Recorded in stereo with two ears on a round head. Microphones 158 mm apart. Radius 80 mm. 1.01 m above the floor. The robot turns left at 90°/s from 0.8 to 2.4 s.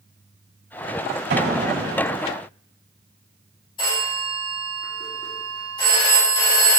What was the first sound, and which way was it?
An explosion, 105° right.